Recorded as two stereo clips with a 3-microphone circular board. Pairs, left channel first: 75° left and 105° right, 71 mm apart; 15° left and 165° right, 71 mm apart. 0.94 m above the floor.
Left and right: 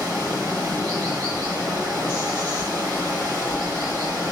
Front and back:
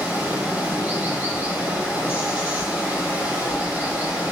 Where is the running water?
110° right, 1.7 m.